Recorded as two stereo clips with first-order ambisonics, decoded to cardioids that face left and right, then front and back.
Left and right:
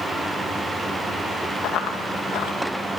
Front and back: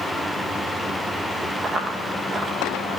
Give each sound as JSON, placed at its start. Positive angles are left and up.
{"t": 1.6, "sound": "running footsteps", "azimuth_deg": 115, "distance_m": 1.0}